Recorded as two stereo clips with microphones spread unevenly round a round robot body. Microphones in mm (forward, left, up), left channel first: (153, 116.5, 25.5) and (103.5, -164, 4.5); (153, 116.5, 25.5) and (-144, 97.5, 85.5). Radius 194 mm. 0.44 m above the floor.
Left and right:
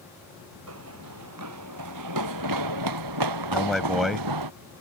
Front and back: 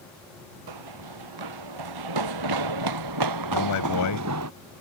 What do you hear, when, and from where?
0.7 s running footsteps: 155° right; by 4.5 s 125° right
3.5 s a man speaking: 10° right